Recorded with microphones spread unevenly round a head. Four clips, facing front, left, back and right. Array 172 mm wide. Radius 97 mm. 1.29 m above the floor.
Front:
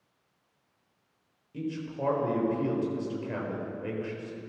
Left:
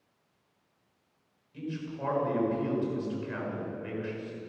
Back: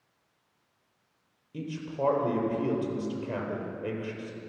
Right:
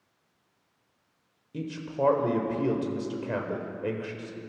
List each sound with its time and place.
1.5 s a man speaking: 105° right, 4.5 m